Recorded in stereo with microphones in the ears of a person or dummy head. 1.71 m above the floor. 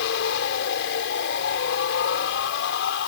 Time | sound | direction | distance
0.0 | a machine running | 70° left (ahead or behind) | ?